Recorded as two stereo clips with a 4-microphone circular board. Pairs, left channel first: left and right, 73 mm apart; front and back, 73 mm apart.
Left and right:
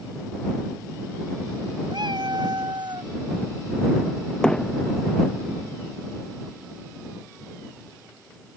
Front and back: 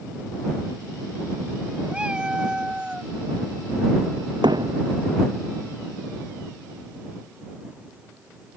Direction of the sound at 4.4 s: 170° left.